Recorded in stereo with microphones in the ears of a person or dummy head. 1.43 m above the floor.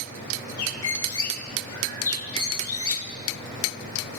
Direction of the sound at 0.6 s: 30° left (ahead or behind).